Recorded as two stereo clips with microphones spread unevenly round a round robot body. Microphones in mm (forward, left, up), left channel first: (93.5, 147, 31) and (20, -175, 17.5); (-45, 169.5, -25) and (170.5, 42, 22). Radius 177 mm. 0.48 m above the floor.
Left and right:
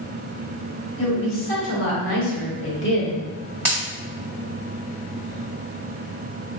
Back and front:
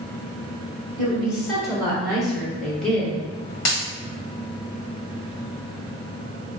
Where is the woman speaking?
65° left, 1.7 m; by 3.2 s 115° left, 0.7 m.